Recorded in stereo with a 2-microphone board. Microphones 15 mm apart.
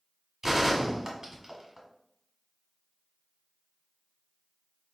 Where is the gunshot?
30° right (ahead or behind), 1.7 m.